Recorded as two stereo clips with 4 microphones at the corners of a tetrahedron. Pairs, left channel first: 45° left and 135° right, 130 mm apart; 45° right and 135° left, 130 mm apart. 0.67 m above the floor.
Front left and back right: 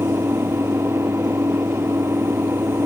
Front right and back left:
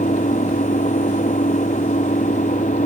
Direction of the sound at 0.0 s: 65° right.